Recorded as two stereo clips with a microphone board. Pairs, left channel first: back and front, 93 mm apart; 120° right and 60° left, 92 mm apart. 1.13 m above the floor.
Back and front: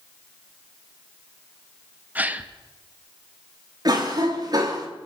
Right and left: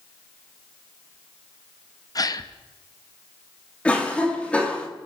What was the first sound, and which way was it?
A gasp, 70° right.